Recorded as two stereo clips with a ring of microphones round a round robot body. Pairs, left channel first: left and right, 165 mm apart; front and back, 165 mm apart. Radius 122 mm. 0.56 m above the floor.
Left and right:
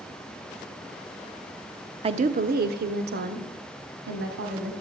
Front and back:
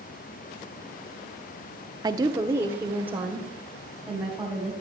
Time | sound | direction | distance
2.0 | a woman speaking | 125° right | 0.8 m